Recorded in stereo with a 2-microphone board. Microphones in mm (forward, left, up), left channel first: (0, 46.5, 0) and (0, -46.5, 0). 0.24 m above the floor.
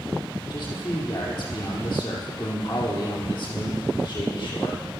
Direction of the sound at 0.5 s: 50° left (ahead or behind).